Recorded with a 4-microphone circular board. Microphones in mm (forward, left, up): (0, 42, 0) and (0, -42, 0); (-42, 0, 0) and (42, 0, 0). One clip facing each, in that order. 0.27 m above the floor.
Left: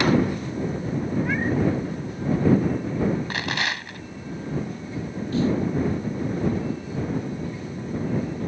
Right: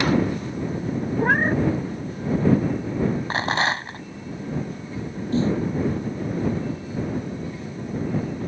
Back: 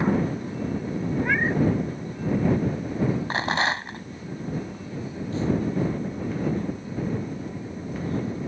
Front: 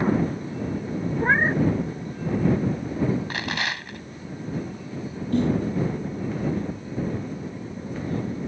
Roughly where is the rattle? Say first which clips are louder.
Right 5 dB, back 4 dB; behind right.